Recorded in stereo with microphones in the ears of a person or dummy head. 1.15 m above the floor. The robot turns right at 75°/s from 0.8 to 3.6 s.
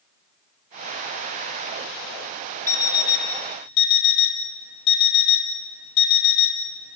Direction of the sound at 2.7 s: 10° left (ahead or behind).